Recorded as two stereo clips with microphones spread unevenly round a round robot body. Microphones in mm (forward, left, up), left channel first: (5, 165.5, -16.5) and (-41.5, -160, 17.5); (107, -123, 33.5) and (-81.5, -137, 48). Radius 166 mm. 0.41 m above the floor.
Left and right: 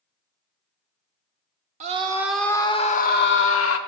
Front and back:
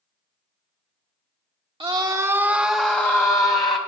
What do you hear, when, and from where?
1.8 s a scream: 150° right, 0.8 m; by 3.8 s 65° left, 1.1 m